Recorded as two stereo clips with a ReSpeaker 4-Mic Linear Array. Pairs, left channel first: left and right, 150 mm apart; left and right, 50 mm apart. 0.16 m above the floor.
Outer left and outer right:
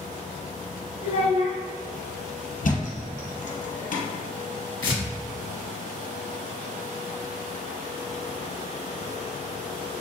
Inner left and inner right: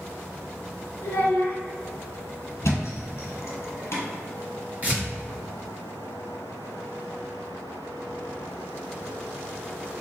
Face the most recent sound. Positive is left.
turn(degrees=-35)  # may be behind; listen again after turning